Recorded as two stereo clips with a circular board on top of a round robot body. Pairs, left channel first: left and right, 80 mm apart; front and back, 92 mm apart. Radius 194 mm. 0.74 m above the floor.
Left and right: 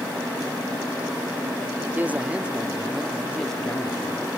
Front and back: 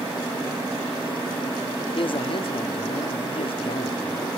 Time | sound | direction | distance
1.9 | a man speaking | 20° right | ?